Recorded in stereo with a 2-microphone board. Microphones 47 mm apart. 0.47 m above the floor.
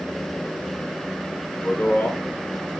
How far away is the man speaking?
About 1.1 m.